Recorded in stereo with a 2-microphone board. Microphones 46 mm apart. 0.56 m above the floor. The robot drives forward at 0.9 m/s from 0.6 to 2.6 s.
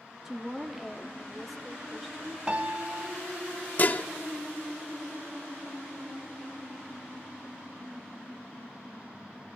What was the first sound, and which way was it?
A woman speaking, 10° right (ahead or behind).